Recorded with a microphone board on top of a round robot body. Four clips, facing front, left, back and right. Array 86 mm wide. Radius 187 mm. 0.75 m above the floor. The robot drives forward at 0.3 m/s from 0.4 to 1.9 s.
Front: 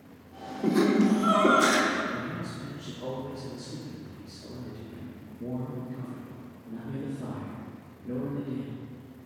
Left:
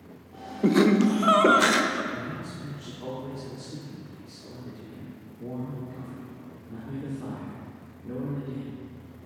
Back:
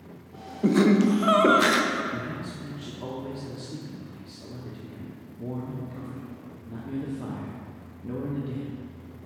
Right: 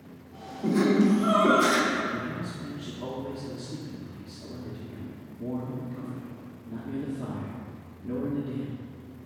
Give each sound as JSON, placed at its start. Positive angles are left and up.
{"t": 0.6, "sound": "laughter", "azimuth_deg": 110, "distance_m": 0.7}
{"t": 2.1, "sound": "a man speaking", "azimuth_deg": -165, "distance_m": 1.3}